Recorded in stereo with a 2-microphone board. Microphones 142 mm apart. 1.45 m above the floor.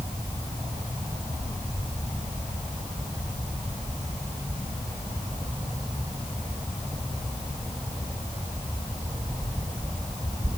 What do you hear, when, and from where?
Only background noise.